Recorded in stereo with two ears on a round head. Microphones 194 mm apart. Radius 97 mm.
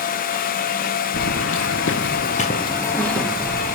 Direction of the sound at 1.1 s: 70° left (ahead or behind).